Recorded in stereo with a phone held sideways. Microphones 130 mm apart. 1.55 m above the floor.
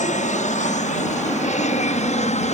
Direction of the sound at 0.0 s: 70° left (ahead or behind).